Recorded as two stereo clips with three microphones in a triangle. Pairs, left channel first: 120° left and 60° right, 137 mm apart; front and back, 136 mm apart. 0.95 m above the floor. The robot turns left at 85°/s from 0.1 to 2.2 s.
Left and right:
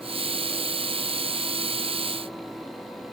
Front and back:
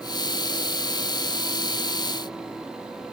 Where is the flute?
No flute in this recording.